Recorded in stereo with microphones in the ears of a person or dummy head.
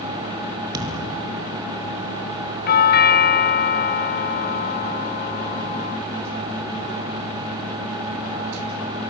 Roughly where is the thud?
Right.